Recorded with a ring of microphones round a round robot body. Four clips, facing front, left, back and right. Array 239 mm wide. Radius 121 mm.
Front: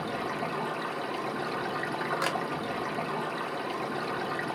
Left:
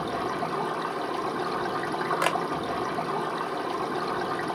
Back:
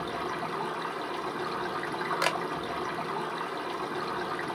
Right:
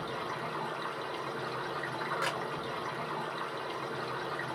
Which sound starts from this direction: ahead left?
Running water, at 0.0 s.